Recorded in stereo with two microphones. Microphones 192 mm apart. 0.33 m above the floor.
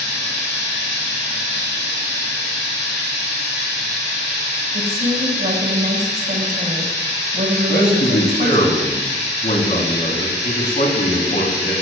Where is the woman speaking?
50° right (ahead or behind), 2.5 m.